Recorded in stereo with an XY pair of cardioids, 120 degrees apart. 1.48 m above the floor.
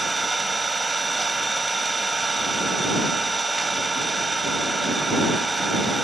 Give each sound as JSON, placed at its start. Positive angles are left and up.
{"t": 0.0, "sound": "an engine running", "azimuth_deg": -15}